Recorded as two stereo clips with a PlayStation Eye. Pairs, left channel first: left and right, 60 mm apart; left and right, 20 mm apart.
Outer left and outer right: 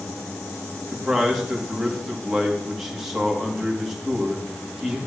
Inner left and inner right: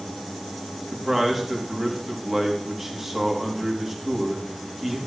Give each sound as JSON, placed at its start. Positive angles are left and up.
{"t": 0.9, "sound": "a man speaking", "side_deg": -5, "distance_m": 3.0}